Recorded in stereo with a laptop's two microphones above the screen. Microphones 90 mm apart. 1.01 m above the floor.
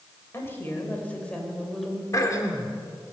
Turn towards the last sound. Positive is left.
turn(degrees=35)  # may be behind; listen again after turning